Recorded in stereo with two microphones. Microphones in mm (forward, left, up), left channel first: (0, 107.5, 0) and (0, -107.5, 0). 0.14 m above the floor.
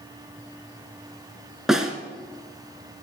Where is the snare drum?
Centre (ahead or behind), 1.8 m.